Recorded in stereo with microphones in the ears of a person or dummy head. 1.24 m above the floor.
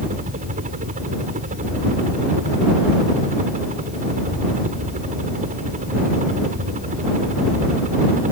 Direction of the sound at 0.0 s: 40° right (ahead or behind).